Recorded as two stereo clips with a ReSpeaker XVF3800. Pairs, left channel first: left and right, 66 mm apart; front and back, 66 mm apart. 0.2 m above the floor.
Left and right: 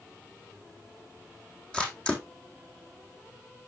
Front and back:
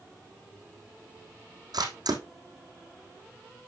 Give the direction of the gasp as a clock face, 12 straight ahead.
No gasp in this recording.